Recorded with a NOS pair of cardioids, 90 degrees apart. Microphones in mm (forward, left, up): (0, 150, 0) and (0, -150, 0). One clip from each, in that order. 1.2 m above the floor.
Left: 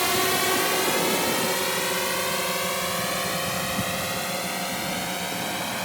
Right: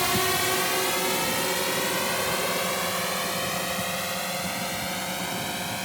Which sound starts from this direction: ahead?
A drone, at 0.0 s.